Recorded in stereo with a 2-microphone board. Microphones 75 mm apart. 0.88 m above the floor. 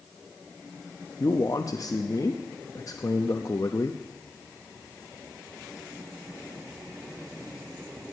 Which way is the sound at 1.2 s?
50° left (ahead or behind).